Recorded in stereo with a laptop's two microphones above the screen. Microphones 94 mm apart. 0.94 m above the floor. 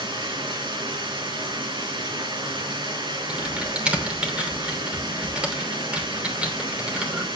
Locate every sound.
0.0 s running water: 60° right (ahead or behind), 3.5 m
3.3 s typing on a keyboard: 10° right (ahead or behind), 3 m